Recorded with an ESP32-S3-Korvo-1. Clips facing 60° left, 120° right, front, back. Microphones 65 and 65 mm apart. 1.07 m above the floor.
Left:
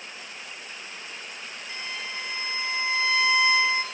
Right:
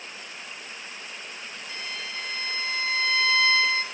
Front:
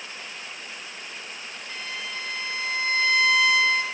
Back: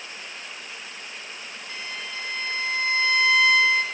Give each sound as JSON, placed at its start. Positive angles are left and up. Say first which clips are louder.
{"t": 1.7, "sound": "a violin", "louder": "left 1 dB, front 1 dB", "azimuth_deg": 85, "distance_m": 0.6}